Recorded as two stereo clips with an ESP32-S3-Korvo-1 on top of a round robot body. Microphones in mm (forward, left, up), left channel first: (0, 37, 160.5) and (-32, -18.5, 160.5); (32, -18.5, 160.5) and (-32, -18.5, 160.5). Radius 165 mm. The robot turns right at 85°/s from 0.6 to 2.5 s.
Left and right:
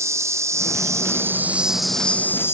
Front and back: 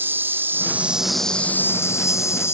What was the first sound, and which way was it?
An insect, 135° right.